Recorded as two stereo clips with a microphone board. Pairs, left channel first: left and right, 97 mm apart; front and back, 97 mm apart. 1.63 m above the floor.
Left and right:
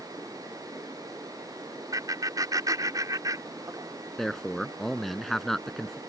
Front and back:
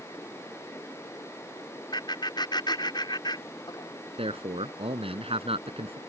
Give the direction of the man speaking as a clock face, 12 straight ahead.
6 o'clock.